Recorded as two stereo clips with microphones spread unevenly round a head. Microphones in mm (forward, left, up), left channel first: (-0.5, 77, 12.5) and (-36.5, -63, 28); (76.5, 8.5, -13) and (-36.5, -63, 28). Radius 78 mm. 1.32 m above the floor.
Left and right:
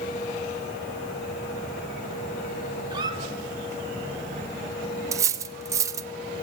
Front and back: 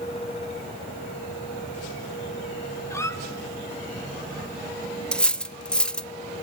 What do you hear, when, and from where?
2.9 s a squeak: 45° right, 1.5 m
5.1 s cutlery clinking: 80° right, 0.5 m